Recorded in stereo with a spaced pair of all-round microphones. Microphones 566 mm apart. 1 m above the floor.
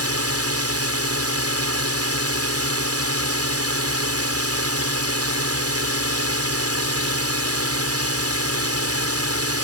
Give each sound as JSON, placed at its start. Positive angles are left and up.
{"t": 0.0, "sound": "a drone", "side_deg": -25}